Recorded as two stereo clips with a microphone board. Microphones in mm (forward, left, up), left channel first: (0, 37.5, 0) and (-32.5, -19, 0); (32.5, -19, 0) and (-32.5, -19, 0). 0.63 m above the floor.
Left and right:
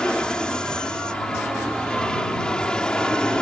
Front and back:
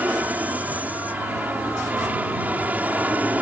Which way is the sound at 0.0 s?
130° left.